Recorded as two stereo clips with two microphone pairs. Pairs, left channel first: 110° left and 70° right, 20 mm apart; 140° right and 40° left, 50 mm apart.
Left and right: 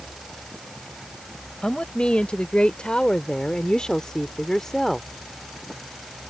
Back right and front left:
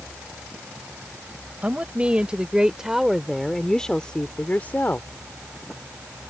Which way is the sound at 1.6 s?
100° left.